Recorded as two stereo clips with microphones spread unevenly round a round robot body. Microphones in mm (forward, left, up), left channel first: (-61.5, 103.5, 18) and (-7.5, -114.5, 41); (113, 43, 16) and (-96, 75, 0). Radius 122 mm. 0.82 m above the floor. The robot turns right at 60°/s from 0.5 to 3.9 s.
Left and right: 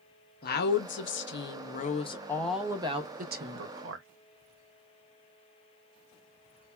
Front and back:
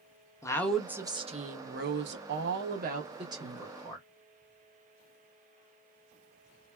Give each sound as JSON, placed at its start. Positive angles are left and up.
{"t": 0.4, "sound": "a woman speaking", "azimuth_deg": 70, "distance_m": 0.8}